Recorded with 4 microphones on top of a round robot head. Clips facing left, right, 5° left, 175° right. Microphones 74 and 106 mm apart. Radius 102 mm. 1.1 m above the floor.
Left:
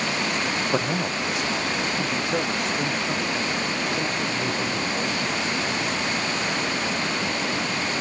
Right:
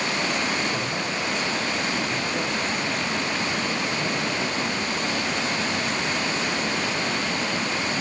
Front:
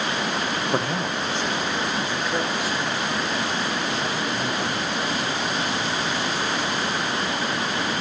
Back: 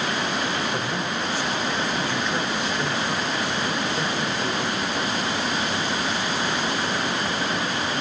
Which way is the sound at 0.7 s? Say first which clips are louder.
Left 3 dB, front 2 dB; 55° left.